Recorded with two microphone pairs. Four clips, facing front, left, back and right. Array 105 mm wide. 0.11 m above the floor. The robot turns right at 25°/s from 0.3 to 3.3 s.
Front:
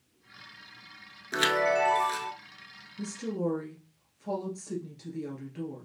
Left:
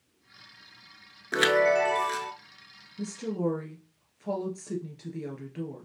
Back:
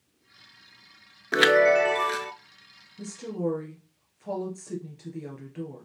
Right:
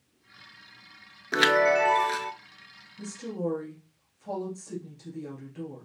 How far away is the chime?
About 0.5 m.